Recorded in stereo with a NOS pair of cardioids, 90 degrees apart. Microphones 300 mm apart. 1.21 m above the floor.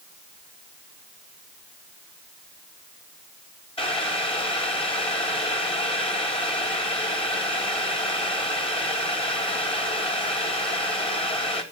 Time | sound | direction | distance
3.8 | boiling | 20° left | 3 m